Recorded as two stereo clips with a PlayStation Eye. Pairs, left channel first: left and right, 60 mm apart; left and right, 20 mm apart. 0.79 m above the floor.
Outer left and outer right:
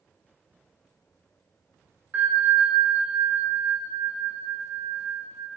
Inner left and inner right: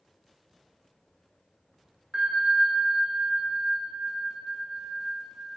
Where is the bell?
30° right (ahead or behind), 0.8 m.